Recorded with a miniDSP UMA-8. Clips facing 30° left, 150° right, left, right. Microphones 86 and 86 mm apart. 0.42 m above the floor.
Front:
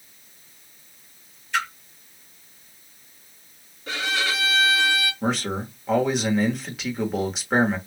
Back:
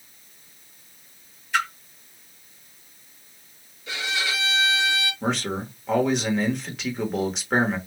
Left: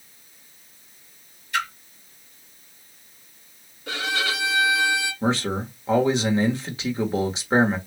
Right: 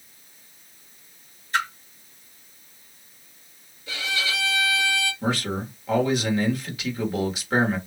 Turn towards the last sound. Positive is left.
turn(degrees=120)